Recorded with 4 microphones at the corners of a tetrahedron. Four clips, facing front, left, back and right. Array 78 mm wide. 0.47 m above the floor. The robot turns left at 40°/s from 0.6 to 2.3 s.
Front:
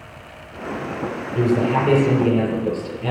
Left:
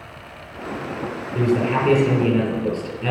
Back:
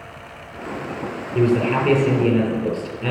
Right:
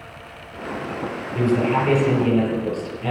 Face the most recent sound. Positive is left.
turn(degrees=140)